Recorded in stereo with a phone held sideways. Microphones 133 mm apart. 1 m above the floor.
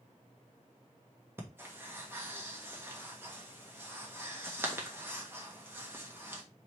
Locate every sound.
1.4 s breathing: 15° right (ahead or behind), 1.1 m